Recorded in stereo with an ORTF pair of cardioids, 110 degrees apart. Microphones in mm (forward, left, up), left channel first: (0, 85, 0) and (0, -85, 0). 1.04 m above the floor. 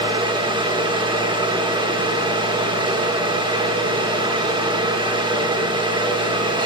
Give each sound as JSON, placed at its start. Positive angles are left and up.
{"t": 0.0, "sound": "a fan", "azimuth_deg": -30, "distance_m": 1.0}